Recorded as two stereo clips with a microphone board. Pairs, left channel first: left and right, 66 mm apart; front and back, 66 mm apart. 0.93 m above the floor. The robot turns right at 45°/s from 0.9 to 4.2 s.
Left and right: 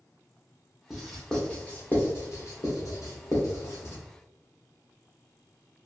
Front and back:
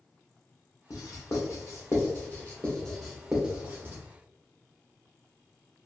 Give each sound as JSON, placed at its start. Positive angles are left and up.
{"t": 0.9, "sound": "writing", "azimuth_deg": -5, "distance_m": 0.8}